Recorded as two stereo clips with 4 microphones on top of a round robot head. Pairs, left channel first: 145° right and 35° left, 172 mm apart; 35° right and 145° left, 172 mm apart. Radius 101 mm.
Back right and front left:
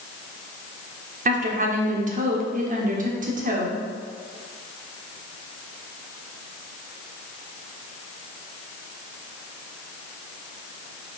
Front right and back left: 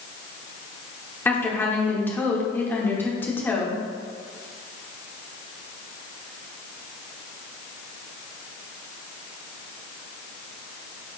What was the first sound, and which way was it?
A woman speaking, 40° left.